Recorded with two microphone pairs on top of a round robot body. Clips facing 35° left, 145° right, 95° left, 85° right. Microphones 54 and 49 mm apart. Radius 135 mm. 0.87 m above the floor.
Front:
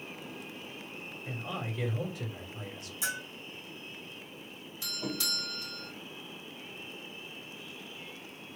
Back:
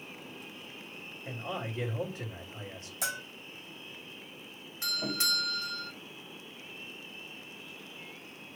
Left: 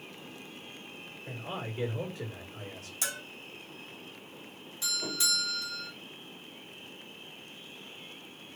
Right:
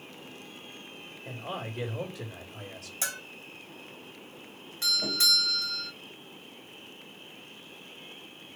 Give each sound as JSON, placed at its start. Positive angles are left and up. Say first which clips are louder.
{"t": 1.2, "sound": "a man speaking", "louder": "back 1 dB, right 2 dB", "azimuth_deg": -105, "distance_m": 3.0}
{"t": 3.0, "sound": "a bell", "louder": "even, right 1 dB", "azimuth_deg": -145, "distance_m": 2.5}
{"t": 4.8, "sound": "a doorbell", "louder": "back 3 dB, right 5 dB", "azimuth_deg": -110, "distance_m": 3.5}